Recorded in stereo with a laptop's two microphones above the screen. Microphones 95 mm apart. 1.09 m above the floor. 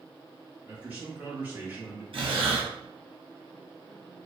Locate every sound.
0.7 s a man speaking: 20° right (ahead or behind), 1.0 m
2.1 s breathing: 70° right (ahead or behind), 1.0 m